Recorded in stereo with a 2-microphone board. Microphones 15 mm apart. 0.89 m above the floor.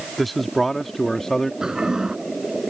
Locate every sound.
0.2 s a man speaking: centre (ahead or behind); by 1.5 s 40° left (ahead or behind)
1.6 s a toilet flushing: 50° right (ahead or behind)